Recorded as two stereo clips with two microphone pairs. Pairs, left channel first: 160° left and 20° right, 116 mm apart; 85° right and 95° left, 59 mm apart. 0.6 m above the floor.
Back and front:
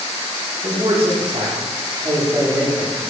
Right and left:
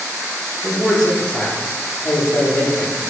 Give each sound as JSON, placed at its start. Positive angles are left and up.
{"t": 0.6, "sound": "a man speaking", "azimuth_deg": 5, "distance_m": 1.0}